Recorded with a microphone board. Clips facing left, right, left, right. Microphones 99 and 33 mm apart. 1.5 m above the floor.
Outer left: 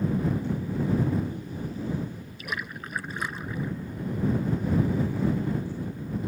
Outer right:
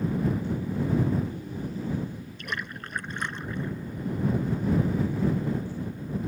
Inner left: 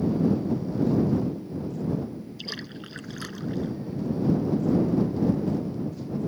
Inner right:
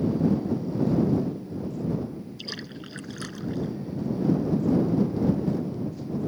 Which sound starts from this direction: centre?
A splash, at 2.4 s.